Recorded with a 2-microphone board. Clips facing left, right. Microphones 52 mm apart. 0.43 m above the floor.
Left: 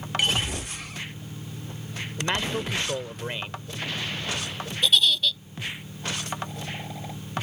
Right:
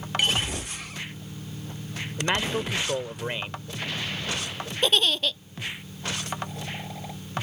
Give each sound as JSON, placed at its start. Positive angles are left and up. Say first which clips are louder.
{"t": 2.2, "sound": "a man speaking", "louder": "right 1 dB", "side_deg": -15}
{"t": 4.8, "sound": "a giggle", "louder": "left 1 dB", "side_deg": -45}